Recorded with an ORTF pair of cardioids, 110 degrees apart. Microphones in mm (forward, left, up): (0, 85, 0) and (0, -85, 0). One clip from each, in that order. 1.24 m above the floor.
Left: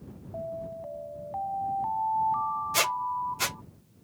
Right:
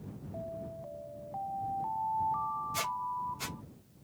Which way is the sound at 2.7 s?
55° left.